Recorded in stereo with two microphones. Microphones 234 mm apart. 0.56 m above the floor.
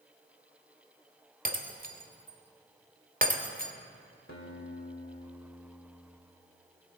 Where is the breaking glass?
35° right (ahead or behind), 1.0 m.